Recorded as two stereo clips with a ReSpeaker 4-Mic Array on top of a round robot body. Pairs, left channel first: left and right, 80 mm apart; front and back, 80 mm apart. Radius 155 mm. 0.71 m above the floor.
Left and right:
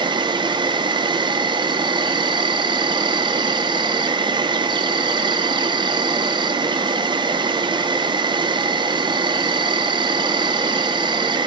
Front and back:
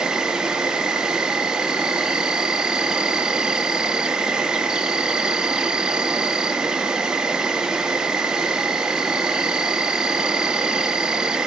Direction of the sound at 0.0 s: 100° right.